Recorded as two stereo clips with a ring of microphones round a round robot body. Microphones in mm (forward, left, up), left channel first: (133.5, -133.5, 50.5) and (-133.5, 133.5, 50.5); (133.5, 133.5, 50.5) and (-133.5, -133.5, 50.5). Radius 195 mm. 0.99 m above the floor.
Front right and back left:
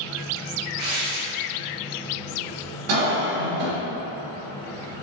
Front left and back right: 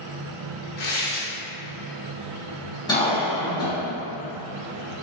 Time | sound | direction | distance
0.8 | tearing paper | 105° left | 0.7 m
2.9 | a cough | 125° left | 1.5 m